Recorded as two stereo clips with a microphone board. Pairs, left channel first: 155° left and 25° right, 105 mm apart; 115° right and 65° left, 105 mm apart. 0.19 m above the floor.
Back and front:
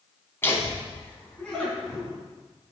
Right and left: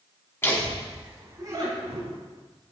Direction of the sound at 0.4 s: 160° right.